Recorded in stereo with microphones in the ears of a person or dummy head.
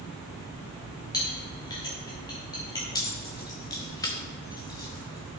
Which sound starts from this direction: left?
A clink, at 1.1 s.